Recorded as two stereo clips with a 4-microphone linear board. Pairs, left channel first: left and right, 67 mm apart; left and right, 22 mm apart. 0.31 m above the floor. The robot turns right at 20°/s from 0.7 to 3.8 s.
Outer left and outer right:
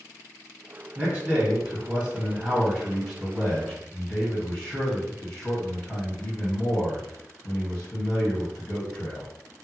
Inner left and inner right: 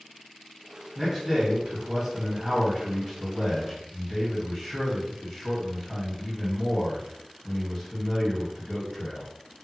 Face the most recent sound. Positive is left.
turn(degrees=15)